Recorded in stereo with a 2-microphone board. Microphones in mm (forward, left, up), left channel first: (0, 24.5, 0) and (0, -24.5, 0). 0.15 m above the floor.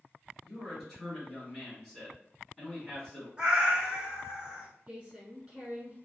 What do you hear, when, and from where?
0.4 s a man speaking: 5° left (ahead or behind), 1.4 m
3.4 s a cat meowing: 20° right (ahead or behind), 1.0 m
4.9 s a woman speaking: 20° right (ahead or behind), 1.5 m